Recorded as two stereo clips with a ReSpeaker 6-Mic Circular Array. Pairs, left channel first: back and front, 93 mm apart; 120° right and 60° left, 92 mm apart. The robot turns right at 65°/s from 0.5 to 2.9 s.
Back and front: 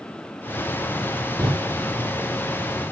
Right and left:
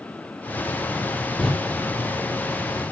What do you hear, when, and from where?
1.4 s a door slam: 45° right, 3.5 m; by 1.5 s 35° right, 3.5 m